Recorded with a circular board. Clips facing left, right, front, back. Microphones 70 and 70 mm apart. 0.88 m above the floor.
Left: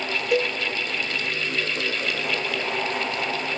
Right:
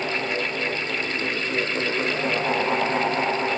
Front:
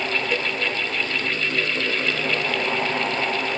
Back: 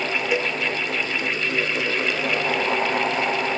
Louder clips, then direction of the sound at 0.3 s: Left 5 dB, back 2 dB; 100° left.